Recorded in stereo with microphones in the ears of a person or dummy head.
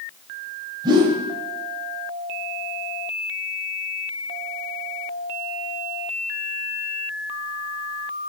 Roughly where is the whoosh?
Centre.